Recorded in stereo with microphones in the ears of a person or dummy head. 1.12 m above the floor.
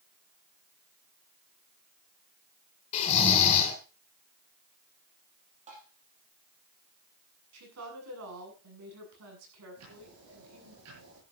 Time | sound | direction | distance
2.9 | snoring | 35° left (ahead or behind) | 3.5 m
5.7 | tapping | 35° right (ahead or behind) | 5.5 m
7.5 | a woman speaking | 85° right | 8 m
9.8 | ticking | 80° right | 8.5 m